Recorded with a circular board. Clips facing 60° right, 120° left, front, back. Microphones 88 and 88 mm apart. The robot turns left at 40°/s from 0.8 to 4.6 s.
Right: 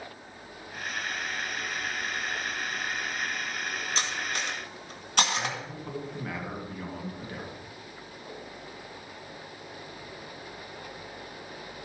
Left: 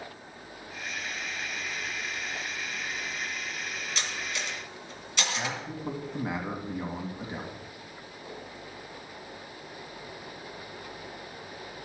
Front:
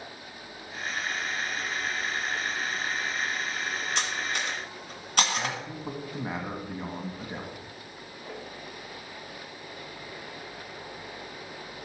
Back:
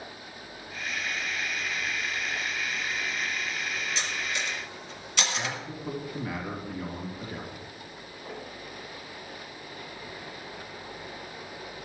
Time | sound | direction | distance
4.0 | cutlery clinking | 10° right | 1.7 m
5.3 | a man speaking | 55° left | 1.9 m